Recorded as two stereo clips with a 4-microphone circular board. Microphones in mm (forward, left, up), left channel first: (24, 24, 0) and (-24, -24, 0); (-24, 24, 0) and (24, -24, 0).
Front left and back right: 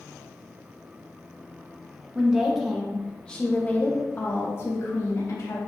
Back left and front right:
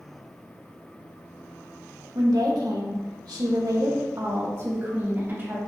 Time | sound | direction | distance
2.1 | a woman speaking | 55° right | 2 m